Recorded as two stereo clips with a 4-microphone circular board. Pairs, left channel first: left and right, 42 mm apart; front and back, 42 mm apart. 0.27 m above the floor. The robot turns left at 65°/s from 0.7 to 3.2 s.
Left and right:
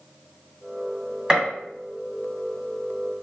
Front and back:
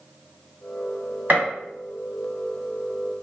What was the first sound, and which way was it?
A gunshot, 150° right.